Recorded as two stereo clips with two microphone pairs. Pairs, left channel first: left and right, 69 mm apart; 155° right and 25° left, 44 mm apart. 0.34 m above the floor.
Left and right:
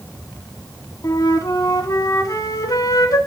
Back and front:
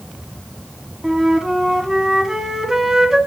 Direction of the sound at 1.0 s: 105° left.